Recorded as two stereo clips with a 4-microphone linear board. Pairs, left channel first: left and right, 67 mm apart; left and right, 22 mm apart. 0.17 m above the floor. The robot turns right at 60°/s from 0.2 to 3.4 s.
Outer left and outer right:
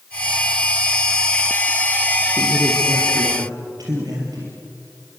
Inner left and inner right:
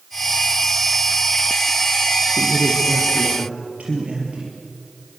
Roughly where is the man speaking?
Behind right.